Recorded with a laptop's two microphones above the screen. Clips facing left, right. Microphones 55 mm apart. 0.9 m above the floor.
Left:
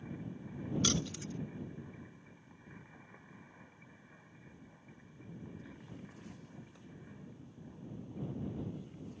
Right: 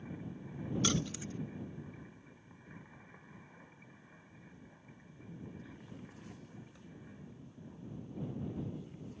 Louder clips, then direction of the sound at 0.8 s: Right 1 dB; 10° right (ahead or behind).